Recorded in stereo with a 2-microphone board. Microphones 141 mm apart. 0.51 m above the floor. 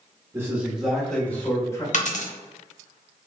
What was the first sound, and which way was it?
A man speaking, 20° right (ahead or behind).